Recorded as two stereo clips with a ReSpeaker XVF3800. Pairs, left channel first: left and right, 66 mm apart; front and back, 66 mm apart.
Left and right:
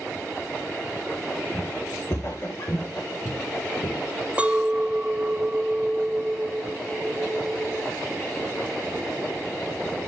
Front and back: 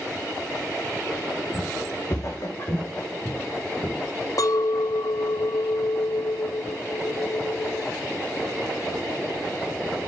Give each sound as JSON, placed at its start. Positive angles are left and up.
{"t": 1.5, "sound": "footsteps", "azimuth_deg": 35, "distance_m": 5.5}
{"t": 4.4, "sound": "a clink", "azimuth_deg": -20, "distance_m": 0.6}